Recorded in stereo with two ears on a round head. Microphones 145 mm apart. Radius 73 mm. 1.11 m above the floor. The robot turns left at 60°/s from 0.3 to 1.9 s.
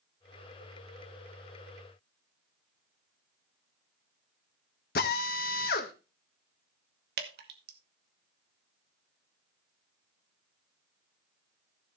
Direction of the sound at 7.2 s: 70° right (ahead or behind).